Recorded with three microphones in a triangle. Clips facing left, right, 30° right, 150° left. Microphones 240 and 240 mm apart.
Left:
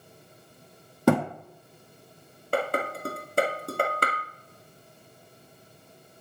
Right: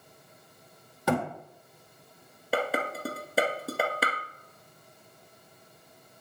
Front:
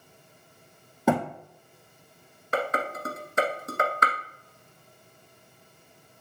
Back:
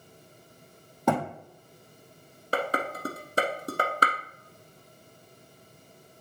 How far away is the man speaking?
I don't hear a man speaking.